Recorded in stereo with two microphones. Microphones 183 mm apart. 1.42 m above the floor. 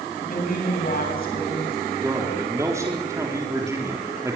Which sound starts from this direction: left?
A woman speaking, at 0.2 s.